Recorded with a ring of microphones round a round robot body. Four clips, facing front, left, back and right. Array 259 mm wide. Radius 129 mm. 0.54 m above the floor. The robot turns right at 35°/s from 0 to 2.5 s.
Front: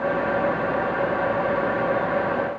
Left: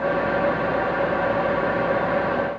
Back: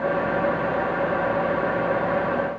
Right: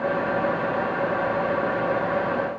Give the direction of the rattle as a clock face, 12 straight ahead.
I don't hear a rattle.